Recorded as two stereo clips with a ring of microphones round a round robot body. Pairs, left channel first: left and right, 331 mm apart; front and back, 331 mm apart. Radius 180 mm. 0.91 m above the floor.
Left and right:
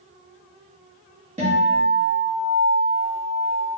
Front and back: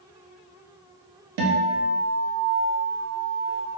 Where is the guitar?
160° right, 0.8 m.